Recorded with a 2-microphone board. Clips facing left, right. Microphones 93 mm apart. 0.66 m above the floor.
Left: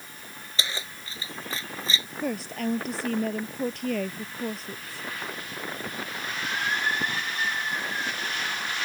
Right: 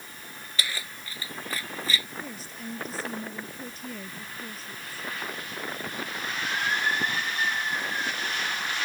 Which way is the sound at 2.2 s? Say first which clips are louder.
Left 10 dB; 70° left (ahead or behind).